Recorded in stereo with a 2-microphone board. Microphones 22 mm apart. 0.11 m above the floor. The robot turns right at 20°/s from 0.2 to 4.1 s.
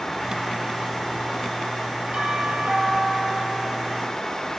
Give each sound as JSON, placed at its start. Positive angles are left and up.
{"t": 2.1, "sound": "a doorbell", "azimuth_deg": -120, "distance_m": 4.5}